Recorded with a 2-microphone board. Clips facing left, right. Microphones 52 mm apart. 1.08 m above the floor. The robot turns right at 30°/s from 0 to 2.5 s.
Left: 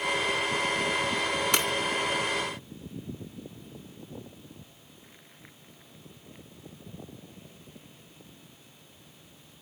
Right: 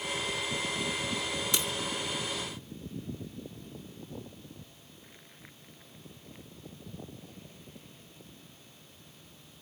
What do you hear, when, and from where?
1.5 s breaking glass: 60° left (ahead or behind); by 1.7 s 65° left (ahead or behind)